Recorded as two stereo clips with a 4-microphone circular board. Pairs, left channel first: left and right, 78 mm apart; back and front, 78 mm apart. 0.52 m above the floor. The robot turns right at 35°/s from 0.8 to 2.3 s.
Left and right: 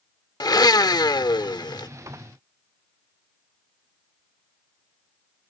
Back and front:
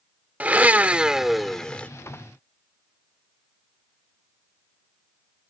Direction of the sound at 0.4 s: 70° left.